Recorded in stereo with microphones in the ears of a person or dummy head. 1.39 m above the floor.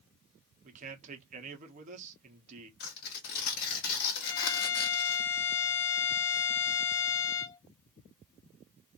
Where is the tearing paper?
55° left (ahead or behind), 1.6 m.